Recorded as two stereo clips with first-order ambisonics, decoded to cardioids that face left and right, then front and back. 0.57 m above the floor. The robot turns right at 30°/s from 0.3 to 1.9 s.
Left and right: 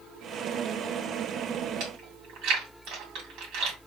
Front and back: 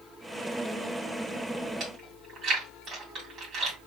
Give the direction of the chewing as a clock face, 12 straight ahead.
4 o'clock.